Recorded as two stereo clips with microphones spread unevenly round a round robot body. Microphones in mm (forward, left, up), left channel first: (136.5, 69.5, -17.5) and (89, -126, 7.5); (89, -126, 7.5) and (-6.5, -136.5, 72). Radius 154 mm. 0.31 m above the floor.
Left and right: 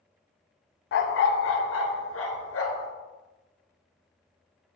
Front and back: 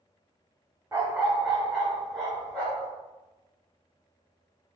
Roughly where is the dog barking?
Left.